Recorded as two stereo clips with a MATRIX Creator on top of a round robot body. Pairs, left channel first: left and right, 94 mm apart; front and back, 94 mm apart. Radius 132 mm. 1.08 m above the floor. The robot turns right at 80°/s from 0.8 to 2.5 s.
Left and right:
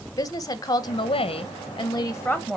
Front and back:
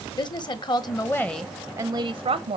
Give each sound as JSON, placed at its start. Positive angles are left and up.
{"t": 0.2, "sound": "a woman speaking", "azimuth_deg": 40, "distance_m": 1.0}